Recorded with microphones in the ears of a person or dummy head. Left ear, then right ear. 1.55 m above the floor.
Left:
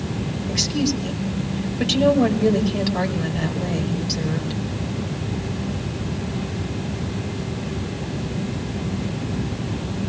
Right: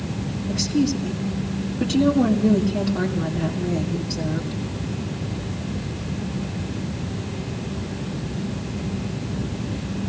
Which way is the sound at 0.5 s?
80° left.